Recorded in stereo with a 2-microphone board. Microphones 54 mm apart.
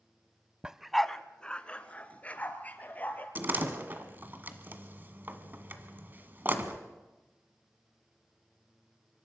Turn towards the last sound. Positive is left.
turn(degrees=-35)  # may be behind; listen again after turning